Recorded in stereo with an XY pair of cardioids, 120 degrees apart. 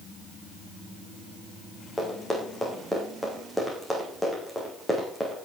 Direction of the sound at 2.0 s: 5° left.